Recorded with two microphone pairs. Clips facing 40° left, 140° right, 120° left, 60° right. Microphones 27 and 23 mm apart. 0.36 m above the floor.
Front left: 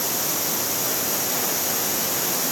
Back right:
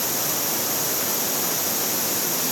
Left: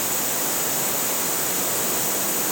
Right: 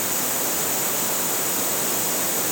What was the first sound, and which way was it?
Only background noise.